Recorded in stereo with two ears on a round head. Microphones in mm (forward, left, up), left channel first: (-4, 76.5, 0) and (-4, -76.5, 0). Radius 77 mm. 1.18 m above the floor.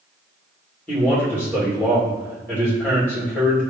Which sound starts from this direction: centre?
A man speaking, at 0.9 s.